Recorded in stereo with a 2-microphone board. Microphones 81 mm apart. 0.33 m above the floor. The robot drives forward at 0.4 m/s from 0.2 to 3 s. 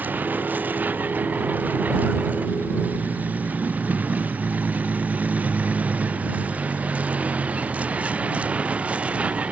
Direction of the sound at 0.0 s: 20° right (ahead or behind).